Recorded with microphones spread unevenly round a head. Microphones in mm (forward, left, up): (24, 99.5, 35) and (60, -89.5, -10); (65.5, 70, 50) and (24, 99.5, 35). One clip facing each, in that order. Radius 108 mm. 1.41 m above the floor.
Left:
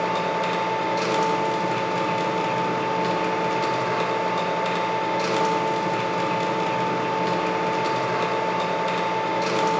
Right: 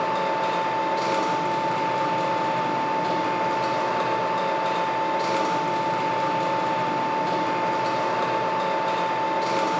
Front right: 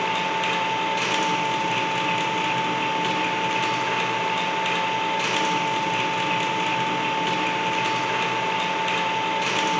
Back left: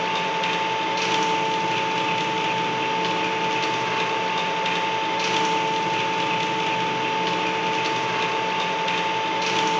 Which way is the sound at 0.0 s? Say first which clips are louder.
Left 1 dB, even; 45° left.